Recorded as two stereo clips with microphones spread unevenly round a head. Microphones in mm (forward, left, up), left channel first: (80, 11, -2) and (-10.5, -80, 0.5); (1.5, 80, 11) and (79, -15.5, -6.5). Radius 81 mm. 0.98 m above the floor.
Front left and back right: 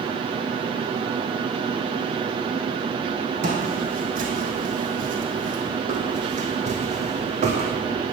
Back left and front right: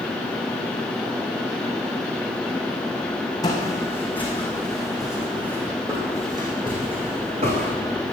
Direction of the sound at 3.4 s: 165° right.